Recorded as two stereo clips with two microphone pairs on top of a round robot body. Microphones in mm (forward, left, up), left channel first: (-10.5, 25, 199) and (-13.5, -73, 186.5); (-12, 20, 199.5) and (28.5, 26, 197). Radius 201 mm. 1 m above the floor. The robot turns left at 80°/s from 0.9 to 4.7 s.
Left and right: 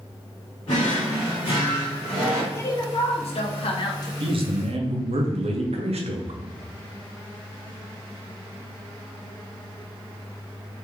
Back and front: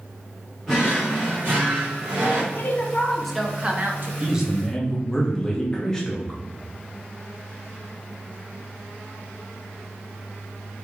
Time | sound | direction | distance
0.7 | a drawer | 105° left | 1.1 m
2.5 | a woman speaking | 160° left | 0.8 m
4.2 | a man speaking | 55° right | 0.7 m